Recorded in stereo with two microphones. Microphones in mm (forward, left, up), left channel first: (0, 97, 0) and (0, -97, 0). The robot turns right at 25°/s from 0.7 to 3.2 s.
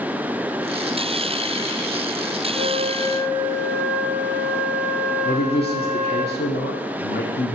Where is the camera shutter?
I don't hear a camera shutter.